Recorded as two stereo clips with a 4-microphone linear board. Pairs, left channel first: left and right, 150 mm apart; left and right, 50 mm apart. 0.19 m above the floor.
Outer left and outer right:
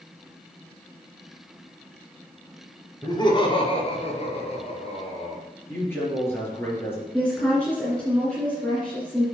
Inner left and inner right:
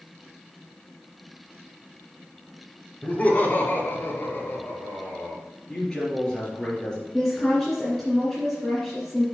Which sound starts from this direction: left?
Laughter, at 3.0 s.